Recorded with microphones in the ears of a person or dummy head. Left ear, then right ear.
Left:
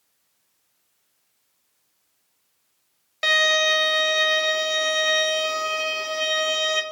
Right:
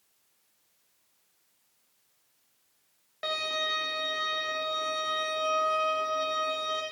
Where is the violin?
70° left (ahead or behind), 1.8 m.